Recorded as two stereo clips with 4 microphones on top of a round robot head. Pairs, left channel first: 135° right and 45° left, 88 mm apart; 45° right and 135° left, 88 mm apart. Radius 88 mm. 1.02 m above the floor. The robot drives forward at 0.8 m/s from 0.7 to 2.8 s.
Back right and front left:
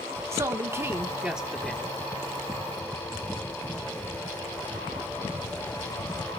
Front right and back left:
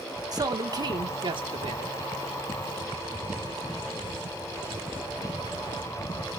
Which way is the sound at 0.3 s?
100° left.